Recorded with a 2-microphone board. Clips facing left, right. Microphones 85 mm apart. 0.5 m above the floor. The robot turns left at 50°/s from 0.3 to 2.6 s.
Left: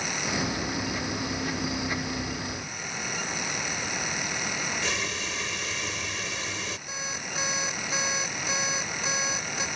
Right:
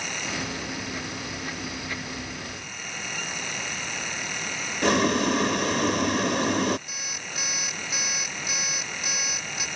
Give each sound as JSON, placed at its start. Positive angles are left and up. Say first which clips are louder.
{"t": 4.8, "sound": "boiling", "louder": "right 11 dB", "side_deg": -55}
{"t": 6.9, "sound": "an alarm clock", "louder": "left 2 dB", "side_deg": 30}